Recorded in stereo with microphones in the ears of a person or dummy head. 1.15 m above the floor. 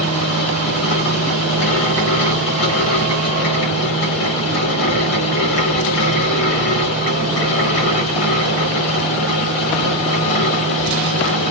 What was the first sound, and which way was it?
A fan, 90° left.